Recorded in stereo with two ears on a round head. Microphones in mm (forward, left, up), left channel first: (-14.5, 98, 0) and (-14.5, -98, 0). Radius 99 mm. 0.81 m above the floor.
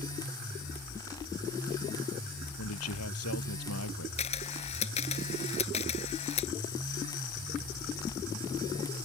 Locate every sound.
2.6 s a man speaking: 75° left (ahead or behind)
4.2 s a camera shutter: 30° left (ahead or behind)